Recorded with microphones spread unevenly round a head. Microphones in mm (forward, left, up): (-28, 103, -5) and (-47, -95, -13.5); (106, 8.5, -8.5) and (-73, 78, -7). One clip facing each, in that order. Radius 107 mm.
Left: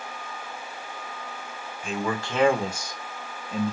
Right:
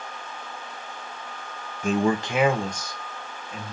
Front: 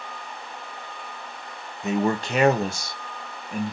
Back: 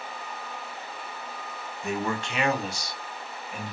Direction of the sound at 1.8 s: 85° right.